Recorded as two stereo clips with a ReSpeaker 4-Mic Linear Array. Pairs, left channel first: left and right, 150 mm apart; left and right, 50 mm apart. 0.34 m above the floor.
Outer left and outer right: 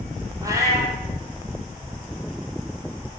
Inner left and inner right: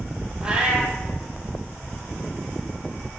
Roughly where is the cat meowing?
Right.